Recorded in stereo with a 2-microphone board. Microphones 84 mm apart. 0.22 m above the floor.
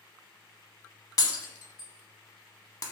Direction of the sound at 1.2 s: 45° left (ahead or behind).